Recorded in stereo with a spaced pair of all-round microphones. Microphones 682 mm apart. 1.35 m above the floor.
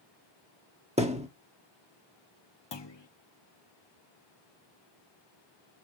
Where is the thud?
10° right (ahead or behind), 1.4 m.